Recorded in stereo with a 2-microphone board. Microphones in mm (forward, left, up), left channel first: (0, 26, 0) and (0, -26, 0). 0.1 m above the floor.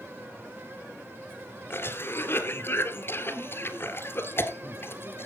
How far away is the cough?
About 2 m.